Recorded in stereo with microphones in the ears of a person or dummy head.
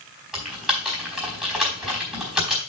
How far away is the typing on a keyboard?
About 4.5 m.